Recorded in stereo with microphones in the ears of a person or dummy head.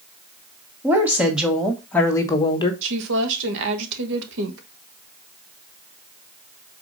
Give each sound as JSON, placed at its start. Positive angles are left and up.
{"t": 0.8, "sound": "a woman speaking", "side_deg": -10, "distance_m": 1.5}
{"t": 2.8, "sound": "a woman speaking", "side_deg": -65, "distance_m": 1.4}